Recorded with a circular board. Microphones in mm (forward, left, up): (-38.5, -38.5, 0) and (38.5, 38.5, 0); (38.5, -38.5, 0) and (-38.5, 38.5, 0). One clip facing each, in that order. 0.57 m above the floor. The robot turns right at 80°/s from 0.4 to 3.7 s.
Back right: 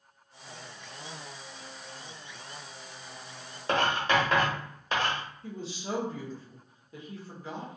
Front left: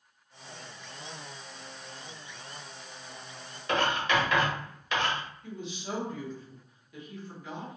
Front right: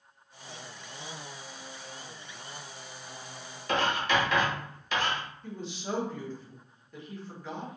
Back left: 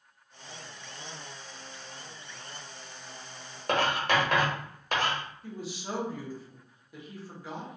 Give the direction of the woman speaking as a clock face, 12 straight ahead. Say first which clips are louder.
Back right 2 dB, front right 1 dB; 5 o'clock.